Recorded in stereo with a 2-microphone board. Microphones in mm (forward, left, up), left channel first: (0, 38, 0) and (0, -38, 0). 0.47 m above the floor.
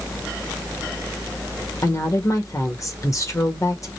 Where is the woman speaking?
45° left (ahead or behind), 1.7 m.